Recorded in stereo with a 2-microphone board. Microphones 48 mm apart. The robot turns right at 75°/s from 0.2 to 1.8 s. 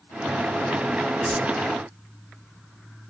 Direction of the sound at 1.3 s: 5° right (ahead or behind).